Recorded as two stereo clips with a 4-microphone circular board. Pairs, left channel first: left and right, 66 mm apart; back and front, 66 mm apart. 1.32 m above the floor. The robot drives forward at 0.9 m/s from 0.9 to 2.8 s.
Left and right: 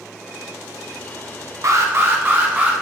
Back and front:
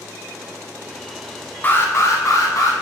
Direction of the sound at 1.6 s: 120° right.